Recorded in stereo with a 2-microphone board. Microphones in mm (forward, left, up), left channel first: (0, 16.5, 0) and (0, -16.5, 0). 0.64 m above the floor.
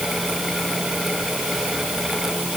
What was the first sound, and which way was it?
Only background noise.